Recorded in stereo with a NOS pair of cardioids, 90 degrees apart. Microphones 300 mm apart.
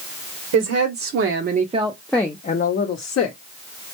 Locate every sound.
0.5 s a woman speaking: 60° right, 0.9 m; by 3.4 s 55° left, 0.8 m